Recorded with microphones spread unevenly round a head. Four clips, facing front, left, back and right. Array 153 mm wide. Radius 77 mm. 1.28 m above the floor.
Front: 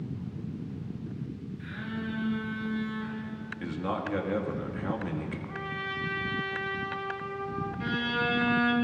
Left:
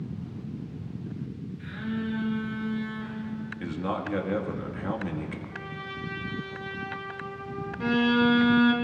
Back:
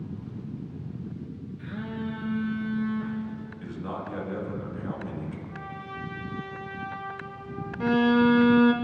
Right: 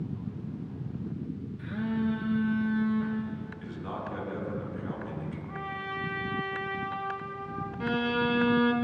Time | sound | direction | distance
1.6 | a phone buzzing | 130° right | 2 m
3.6 | a man speaking | 60° left | 2.5 m
5.5 | a trumpet | 45° right | 2.0 m
7.8 | a violin | 170° left | 0.8 m